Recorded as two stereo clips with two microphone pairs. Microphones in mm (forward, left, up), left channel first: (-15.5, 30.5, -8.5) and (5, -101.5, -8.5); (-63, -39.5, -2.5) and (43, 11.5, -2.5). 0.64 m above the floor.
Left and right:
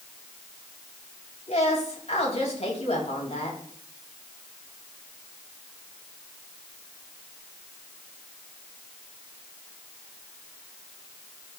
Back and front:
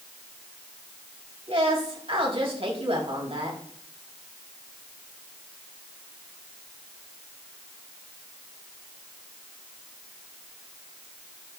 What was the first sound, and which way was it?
A woman speaking, 60° left.